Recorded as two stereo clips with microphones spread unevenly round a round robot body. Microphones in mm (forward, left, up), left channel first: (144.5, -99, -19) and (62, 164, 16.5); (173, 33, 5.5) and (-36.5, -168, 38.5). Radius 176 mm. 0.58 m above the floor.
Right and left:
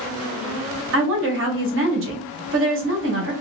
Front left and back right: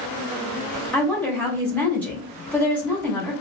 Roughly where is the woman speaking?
Behind left.